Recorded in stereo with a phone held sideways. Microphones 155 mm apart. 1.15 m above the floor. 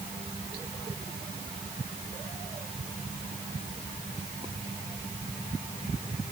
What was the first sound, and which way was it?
Only background noise.